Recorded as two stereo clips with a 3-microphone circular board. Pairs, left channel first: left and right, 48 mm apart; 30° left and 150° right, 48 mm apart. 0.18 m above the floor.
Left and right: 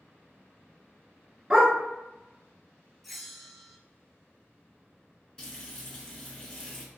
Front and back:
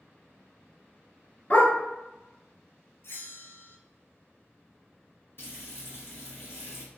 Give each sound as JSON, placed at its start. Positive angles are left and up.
{"t": 1.5, "sound": "a dog barking", "azimuth_deg": -20, "distance_m": 1.2}
{"t": 3.0, "sound": "a bell", "azimuth_deg": 0, "distance_m": 0.5}
{"t": 5.4, "sound": "frying", "azimuth_deg": 15, "distance_m": 1.7}